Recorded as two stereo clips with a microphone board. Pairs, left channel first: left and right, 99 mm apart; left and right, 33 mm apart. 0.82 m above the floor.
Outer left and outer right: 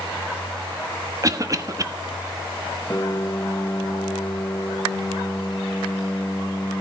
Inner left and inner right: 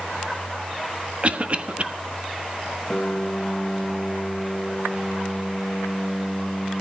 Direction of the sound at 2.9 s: 30° left (ahead or behind).